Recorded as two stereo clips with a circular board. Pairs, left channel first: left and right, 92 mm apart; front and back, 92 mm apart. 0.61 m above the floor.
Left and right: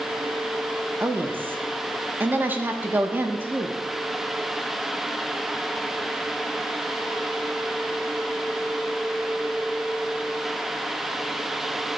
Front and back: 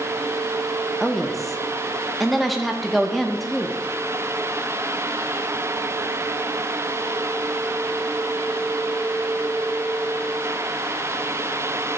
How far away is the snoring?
No snoring in this recording.